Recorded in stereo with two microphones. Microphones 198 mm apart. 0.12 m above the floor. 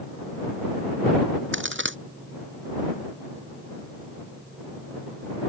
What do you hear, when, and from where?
1.5 s a crack: 75° right (ahead or behind)